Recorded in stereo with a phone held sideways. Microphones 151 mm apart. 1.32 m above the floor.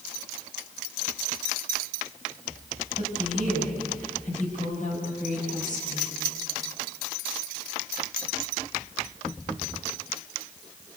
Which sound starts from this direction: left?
A woman speaking, at 3.0 s.